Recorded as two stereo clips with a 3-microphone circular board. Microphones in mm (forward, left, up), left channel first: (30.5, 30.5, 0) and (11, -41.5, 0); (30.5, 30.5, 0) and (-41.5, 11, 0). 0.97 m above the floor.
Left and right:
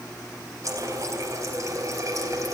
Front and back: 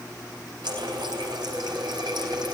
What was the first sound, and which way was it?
A running tap, 150° right.